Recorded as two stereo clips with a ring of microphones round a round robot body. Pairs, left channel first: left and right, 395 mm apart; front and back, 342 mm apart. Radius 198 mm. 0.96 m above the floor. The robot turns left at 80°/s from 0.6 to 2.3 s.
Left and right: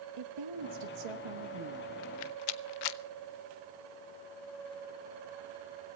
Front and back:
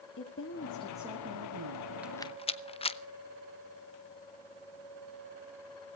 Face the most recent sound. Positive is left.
turn(degrees=75)